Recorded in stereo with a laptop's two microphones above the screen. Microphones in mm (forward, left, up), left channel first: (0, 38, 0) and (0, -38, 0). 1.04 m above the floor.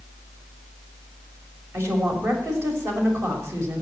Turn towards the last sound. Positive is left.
turn(degrees=-35)  # may be behind; listen again after turning